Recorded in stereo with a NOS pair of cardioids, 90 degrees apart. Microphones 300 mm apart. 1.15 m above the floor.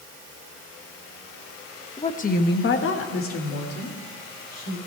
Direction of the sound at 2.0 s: 15° left.